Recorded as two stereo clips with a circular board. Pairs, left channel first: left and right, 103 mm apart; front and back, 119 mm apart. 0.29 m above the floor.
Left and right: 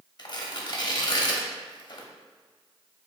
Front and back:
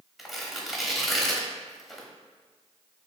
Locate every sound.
0.2 s tearing paper: 90° left, 0.8 m